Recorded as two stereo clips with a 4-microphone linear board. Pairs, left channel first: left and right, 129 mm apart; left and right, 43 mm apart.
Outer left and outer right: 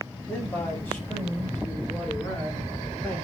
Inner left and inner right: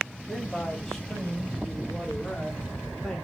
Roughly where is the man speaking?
Centre.